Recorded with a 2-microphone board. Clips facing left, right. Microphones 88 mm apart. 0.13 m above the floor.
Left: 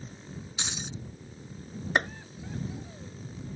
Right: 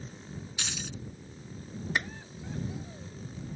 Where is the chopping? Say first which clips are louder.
Left 5 dB; 45° left (ahead or behind).